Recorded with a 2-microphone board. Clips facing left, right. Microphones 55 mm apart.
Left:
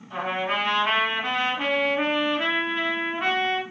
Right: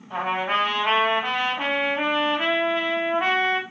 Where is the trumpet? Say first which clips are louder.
Right 2 dB; 15° right (ahead or behind), 1.9 m.